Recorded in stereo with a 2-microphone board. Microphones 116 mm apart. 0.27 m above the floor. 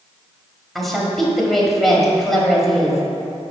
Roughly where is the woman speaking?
Centre.